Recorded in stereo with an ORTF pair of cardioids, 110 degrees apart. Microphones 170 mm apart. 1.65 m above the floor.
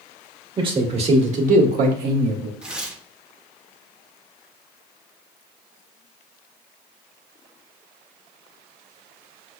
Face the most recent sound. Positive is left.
turn(degrees=-5)